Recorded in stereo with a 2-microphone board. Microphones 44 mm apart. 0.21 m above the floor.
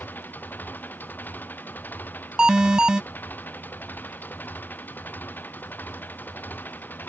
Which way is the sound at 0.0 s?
45° left (ahead or behind).